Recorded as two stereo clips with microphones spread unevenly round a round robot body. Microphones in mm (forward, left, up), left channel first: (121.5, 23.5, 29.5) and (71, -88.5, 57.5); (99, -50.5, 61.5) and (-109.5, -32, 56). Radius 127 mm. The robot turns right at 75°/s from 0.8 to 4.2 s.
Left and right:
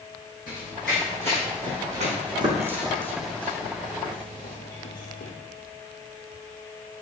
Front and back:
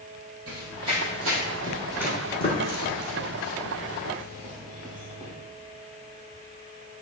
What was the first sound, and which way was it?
Running footsteps, 145° left.